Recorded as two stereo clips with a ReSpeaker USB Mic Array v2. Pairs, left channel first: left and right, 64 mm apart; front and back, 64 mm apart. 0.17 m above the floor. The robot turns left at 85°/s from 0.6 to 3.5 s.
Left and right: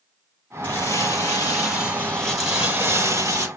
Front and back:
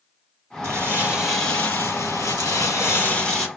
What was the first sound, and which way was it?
Crumpling, 145° left.